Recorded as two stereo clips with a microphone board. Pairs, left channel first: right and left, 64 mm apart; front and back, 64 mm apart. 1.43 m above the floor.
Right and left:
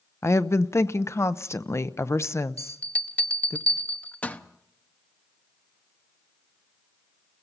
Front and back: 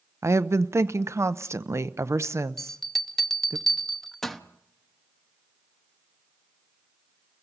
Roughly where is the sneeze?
I don't hear a sneeze.